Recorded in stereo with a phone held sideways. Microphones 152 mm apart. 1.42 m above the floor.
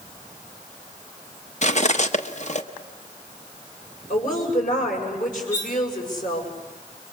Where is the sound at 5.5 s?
60° left (ahead or behind), 3 m.